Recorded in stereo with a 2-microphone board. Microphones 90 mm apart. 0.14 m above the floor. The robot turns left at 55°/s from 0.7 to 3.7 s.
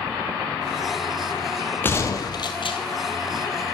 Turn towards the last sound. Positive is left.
turn(degrees=55)